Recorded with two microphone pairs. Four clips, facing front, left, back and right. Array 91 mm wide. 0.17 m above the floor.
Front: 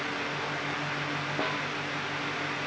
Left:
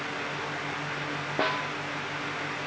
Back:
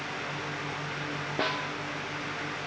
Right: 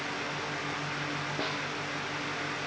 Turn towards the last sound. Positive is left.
turn(degrees=100)